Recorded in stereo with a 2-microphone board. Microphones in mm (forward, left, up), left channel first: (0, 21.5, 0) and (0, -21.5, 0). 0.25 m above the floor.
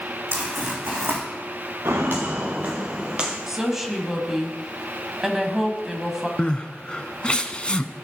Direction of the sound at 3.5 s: 10° right (ahead or behind).